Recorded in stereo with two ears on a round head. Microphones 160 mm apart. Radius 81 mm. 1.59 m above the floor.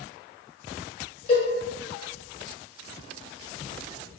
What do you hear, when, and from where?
1.3 s a cowbell: 35° left (ahead or behind), 1.1 m